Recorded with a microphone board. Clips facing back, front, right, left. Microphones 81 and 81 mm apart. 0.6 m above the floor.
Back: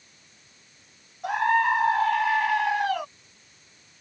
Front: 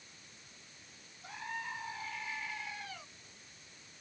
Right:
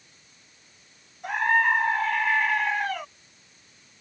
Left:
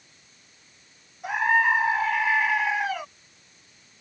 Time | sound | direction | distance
1.2 | a scream | 175° left | ?